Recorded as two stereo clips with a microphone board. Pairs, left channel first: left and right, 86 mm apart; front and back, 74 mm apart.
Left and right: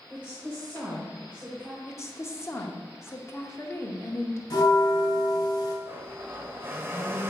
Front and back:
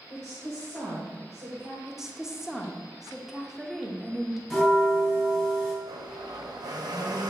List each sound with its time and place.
0.1 s a woman speaking: 155° right, 1.6 m
1.9 s a woman speaking: 100° left, 0.8 m
4.5 s a bell: 90° left, 1.7 m
5.8 s a blender: 155° right, 0.7 m